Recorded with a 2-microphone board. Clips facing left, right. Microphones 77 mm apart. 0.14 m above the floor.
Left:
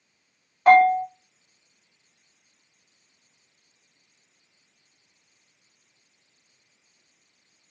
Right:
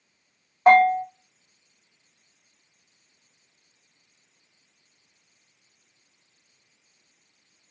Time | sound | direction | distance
0.7 | a bell | 30° right (ahead or behind) | 2.5 m